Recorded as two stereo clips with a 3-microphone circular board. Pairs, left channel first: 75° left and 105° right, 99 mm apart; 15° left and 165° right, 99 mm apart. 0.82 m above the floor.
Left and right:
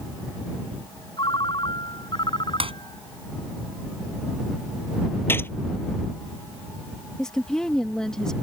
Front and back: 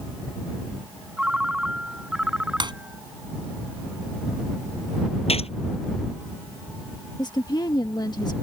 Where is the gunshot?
5° left.